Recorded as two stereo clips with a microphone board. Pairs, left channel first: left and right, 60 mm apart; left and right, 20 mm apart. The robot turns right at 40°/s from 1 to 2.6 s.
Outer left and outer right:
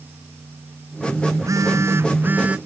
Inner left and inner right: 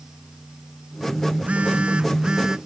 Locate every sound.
1.3 s a phone buzzing: 75° right; by 2.6 s 25° right